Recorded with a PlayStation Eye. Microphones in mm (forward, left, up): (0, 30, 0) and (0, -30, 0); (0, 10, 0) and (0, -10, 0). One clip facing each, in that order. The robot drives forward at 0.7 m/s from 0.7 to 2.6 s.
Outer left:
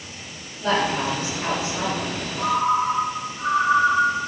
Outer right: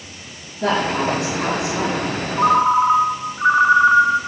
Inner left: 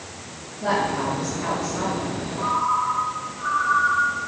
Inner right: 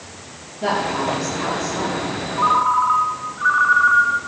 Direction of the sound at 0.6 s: 65° right (ahead or behind).